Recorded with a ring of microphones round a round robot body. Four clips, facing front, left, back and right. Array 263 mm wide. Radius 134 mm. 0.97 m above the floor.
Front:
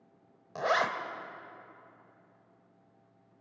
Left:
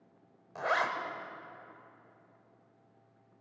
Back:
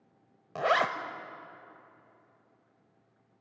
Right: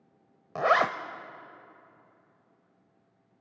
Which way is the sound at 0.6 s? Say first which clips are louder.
Right 7 dB, back 2 dB; 105° right.